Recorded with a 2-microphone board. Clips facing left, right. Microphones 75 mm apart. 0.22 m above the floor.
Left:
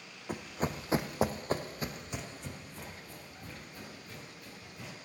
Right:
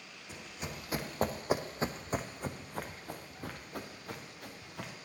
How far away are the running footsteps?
About 0.9 m.